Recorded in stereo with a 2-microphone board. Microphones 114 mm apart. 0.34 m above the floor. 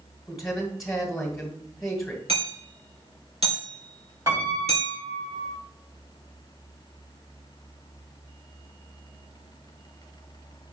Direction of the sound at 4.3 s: 25° right (ahead or behind).